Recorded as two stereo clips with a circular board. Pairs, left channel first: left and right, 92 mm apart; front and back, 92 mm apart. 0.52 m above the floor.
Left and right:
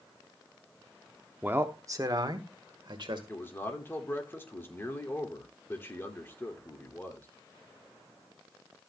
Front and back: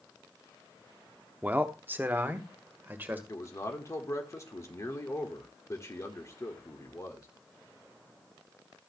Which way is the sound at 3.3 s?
40° left.